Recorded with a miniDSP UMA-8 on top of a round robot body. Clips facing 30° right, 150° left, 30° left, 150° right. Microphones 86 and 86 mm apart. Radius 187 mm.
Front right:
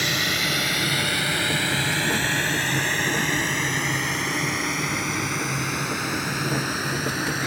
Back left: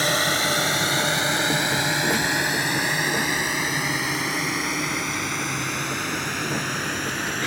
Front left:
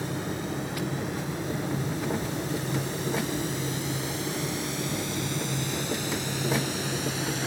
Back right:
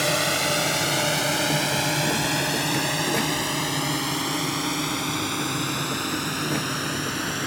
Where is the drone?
155° right; by 7.5 s 115° right.